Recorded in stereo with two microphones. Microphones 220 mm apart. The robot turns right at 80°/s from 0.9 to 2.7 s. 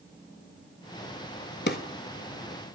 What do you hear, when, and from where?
1.7 s a drawer: 50° left (ahead or behind), 0.5 m; by 1.8 s 45° left (ahead or behind), 0.5 m